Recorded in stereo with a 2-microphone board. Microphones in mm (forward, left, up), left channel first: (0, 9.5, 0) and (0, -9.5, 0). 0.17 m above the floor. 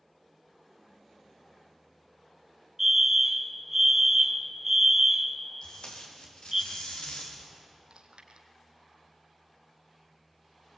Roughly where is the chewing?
Right.